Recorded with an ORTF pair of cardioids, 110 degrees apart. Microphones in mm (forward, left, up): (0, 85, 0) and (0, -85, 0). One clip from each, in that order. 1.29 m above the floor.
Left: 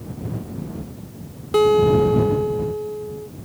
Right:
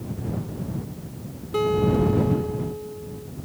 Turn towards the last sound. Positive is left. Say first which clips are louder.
# left 7 dB
turn(degrees=50)